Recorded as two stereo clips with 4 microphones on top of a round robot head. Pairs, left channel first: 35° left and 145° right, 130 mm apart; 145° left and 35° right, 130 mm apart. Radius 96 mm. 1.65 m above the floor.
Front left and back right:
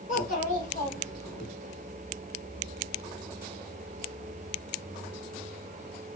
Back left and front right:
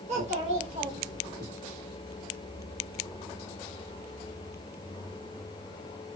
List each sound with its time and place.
0.1 s a child speaking: 5° left, 2.5 m; by 1.5 s 20° left, 1.3 m